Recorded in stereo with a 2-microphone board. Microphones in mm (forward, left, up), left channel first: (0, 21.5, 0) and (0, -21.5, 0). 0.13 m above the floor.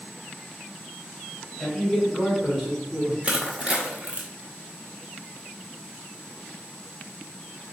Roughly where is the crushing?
Right.